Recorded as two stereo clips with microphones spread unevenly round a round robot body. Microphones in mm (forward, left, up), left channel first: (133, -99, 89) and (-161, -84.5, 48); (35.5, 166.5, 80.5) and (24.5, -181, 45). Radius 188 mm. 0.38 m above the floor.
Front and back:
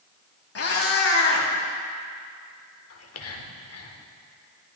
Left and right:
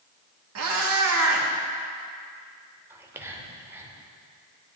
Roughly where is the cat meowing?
Ahead right.